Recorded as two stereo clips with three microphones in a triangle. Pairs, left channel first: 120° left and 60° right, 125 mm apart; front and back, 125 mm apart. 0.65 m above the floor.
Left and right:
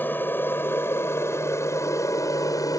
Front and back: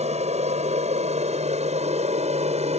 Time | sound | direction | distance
0.0 | an aircraft | 165° right | ?